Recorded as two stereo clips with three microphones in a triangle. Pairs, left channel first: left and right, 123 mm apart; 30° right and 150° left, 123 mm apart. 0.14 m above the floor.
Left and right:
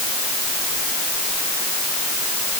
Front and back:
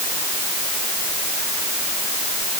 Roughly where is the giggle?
I don't hear a giggle.